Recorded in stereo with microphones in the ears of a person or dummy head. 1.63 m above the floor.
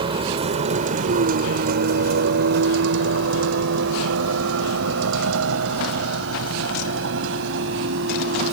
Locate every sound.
0.0 s a vehicle: 30° right (ahead or behind); by 8.5 s 70° right (ahead or behind)